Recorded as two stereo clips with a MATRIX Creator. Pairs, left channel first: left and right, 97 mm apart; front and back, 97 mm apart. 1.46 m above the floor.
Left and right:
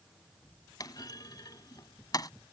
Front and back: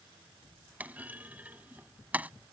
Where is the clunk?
115° left.